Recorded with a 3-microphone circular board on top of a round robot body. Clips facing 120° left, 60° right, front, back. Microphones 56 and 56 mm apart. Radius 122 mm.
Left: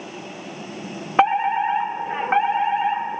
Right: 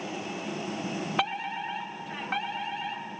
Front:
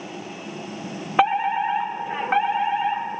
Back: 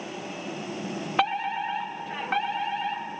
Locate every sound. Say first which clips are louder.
1.2 s a fire alarm: left 15 dB, front 7 dB; 70° left